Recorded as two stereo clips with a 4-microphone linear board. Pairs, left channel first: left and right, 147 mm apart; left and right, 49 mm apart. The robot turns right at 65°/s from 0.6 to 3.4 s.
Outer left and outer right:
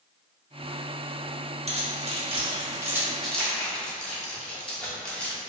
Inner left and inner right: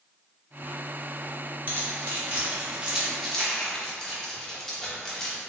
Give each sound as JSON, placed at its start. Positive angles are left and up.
{"t": 1.7, "sound": "keys jangling", "side_deg": -45, "distance_m": 0.8}